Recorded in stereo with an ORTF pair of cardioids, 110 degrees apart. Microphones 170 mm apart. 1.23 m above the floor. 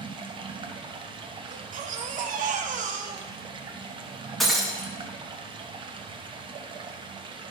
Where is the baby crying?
50° right, 0.9 m.